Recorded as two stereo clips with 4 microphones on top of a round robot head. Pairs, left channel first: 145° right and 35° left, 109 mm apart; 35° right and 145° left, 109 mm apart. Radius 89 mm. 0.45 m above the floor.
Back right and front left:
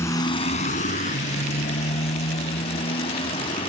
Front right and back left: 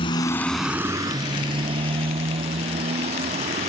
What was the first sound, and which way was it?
A motorcycle, 80° right.